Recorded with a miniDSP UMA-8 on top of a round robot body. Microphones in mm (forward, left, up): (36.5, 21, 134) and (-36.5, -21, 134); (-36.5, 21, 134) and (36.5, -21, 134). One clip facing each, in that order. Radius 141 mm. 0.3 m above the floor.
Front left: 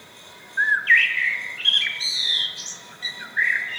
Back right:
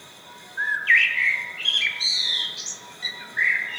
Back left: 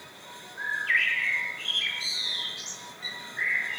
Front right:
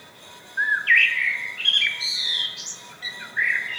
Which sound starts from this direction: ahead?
A bird, at 0.6 s.